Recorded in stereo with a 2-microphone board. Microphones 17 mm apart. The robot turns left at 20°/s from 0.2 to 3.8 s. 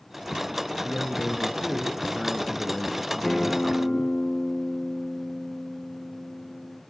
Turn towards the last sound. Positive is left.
turn(degrees=50)  # may be behind; listen again after turning